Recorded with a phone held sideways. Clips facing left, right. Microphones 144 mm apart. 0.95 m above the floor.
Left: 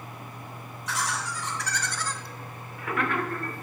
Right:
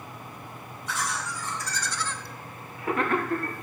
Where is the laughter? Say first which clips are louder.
Left 1 dB; 80° left, 1.9 m; by 3.5 s 45° right (ahead or behind), 1.8 m.